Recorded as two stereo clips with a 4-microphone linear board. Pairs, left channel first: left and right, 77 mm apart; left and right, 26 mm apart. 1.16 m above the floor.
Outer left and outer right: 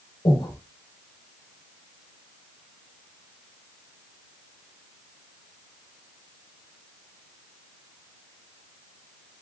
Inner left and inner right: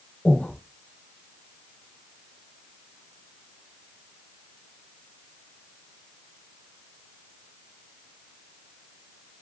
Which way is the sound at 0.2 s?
85° left.